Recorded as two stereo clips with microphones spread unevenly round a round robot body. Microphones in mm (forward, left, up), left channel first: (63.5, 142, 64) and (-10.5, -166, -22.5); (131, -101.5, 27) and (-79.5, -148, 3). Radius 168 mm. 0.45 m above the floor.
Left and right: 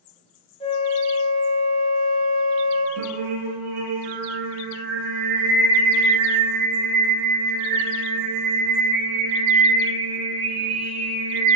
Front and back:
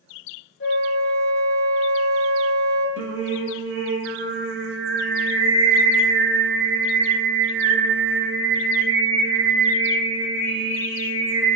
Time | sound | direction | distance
0.6 | a flute | straight ahead | 0.6 m
3.0 | singing | 130° right | 0.6 m